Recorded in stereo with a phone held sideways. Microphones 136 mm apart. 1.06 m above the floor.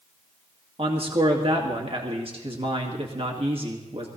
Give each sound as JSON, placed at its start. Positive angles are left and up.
{"t": 0.8, "sound": "a man speaking", "side_deg": -45, "distance_m": 1.9}